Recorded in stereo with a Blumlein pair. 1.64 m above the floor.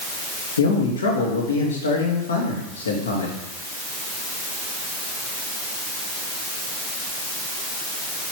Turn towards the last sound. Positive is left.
turn(degrees=70)